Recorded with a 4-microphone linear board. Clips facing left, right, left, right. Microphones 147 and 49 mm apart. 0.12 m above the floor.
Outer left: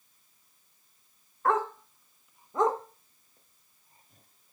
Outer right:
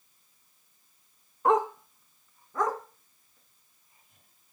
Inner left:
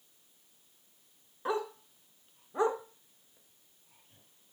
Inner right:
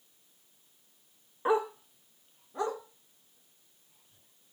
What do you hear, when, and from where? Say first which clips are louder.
1.4 s a dog barking: outer right 3 dB, inner right 6 dB; 20° right (ahead or behind), 0.6 m; by 4.5 s 40° left (ahead or behind), 1.5 m